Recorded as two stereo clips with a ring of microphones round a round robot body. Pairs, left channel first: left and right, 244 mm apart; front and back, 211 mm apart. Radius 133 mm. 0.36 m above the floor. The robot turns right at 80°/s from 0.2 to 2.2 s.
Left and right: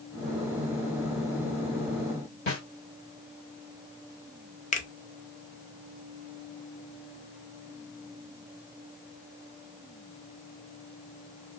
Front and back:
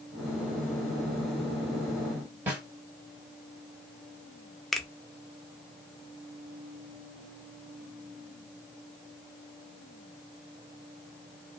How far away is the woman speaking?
I don't hear a woman speaking.